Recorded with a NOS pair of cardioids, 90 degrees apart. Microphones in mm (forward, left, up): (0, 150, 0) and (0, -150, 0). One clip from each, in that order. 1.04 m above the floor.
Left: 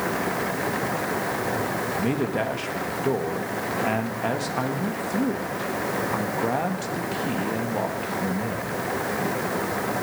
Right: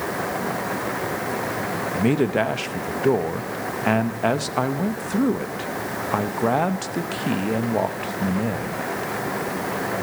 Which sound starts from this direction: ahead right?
A man speaking, at 1.9 s.